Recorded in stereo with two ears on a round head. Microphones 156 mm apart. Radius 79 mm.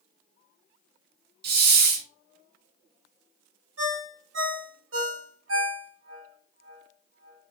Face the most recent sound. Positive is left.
turn(degrees=-80)